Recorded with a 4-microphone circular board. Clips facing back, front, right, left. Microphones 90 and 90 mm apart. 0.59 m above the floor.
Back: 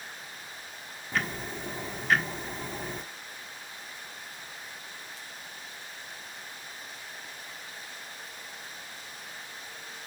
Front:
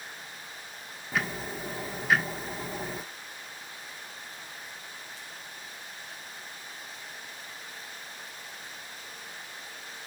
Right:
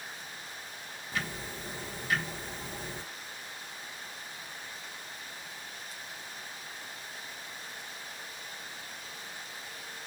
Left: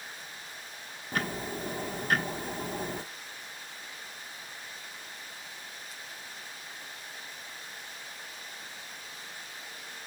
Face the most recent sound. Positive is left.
turn(degrees=85)